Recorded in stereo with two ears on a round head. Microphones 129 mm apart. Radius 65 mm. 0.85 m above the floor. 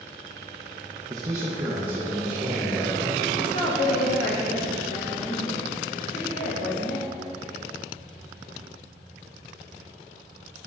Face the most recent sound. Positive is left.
turn(degrees=60)  # may be behind; listen again after turning